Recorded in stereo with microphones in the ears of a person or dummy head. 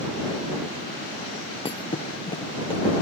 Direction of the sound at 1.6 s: 20° left (ahead or behind).